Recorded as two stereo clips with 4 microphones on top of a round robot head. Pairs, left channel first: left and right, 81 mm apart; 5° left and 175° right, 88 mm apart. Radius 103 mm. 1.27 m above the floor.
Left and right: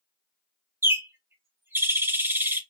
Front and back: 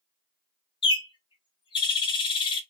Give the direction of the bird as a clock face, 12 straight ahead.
1 o'clock.